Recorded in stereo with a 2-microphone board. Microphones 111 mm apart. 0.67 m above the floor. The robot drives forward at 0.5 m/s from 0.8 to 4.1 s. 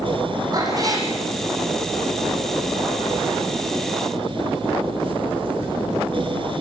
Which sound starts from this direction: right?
A cat meowing, at 0.5 s.